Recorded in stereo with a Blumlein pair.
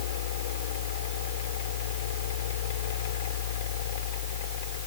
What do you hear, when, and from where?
0.0 s a fan: 55° left